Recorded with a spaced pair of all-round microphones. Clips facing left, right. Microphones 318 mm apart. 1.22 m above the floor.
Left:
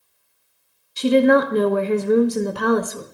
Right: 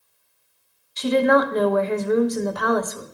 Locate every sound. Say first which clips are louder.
1.0 s a woman speaking: left 3 dB; 35° left (ahead or behind), 0.8 m